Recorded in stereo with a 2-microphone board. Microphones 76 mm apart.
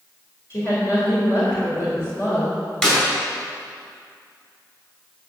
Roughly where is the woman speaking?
Left.